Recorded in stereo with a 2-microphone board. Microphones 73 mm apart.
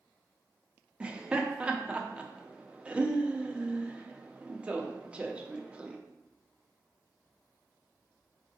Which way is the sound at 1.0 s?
15° right (ahead or behind).